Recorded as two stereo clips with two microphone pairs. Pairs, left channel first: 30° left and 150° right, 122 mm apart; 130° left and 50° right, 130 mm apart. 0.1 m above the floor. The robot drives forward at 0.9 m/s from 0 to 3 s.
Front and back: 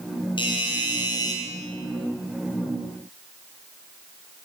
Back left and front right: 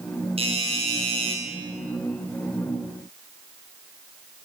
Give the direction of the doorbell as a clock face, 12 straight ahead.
1 o'clock.